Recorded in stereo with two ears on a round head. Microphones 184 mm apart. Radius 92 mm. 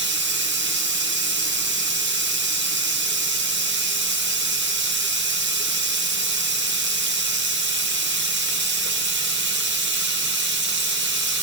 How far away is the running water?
About 1.0 m.